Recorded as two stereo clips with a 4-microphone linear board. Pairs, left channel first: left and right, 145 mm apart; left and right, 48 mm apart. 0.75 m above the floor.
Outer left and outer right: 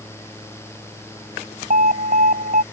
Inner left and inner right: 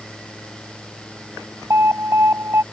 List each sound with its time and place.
1.7 s an alarm: 65° right (ahead or behind)